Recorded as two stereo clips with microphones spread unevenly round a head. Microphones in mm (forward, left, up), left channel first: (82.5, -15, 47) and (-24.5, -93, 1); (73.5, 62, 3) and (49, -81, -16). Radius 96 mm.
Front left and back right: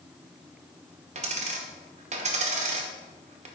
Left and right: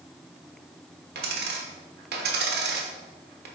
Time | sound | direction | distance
1.1 | a dropped coin | 100° right | 0.9 m